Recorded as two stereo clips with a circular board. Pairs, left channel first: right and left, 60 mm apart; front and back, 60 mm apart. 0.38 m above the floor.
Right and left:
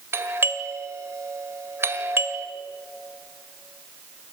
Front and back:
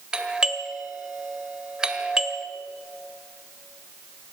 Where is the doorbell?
110° left, 1.8 m.